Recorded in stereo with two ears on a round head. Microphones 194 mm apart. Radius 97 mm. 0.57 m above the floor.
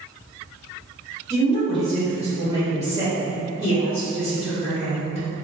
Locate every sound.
1.3 s a woman speaking: 15° right (ahead or behind), 0.8 m; by 5.2 s 55° left (ahead or behind), 1.9 m